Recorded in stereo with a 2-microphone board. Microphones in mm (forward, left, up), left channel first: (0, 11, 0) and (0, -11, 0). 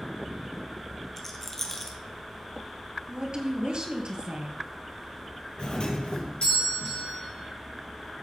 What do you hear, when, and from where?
1.2 s a rattle: 15° left (ahead or behind), 1.6 m
3.1 s a woman speaking: 45° right (ahead or behind), 1.9 m
5.6 s a doorbell: 55° left (ahead or behind), 3 m